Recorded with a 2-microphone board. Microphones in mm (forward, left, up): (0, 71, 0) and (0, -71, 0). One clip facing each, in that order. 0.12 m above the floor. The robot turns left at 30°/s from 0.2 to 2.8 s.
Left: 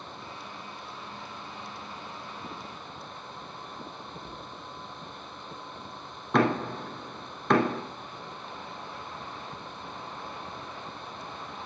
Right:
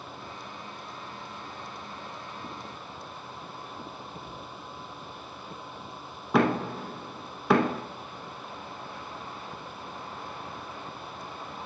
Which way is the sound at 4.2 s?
35° left (ahead or behind).